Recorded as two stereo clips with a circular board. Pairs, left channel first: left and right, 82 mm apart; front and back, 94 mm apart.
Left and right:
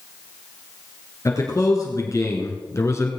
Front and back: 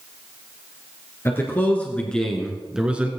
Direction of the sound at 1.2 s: 55° left.